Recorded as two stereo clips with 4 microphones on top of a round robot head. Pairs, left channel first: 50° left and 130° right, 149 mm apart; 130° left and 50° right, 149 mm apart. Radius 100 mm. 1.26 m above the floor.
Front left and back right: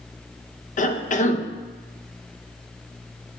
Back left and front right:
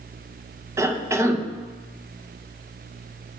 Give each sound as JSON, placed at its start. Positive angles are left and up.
{"t": 0.8, "sound": "a cough", "azimuth_deg": 20, "distance_m": 0.7}